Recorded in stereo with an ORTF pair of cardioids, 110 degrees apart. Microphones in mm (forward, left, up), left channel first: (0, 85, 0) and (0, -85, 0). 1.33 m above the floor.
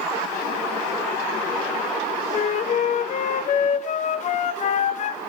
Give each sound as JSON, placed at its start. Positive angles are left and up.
{"t": 2.3, "sound": "a flute", "azimuth_deg": 45, "distance_m": 0.5}